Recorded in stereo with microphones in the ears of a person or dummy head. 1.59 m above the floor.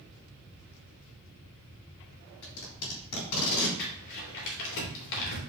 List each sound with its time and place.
2.4 s tape being pulled: 85° left, 3.5 m
3.8 s crumpling: 65° left (ahead or behind), 3 m